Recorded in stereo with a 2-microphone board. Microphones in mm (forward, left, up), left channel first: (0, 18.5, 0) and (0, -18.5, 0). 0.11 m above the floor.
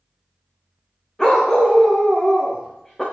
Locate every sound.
1.2 s a dog barking: 15° left (ahead or behind), 4 m